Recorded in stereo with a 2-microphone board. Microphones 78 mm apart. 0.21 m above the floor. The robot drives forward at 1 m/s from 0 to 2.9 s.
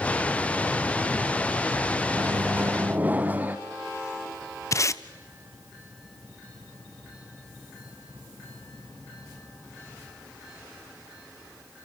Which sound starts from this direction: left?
Tape being pulled, at 4.7 s.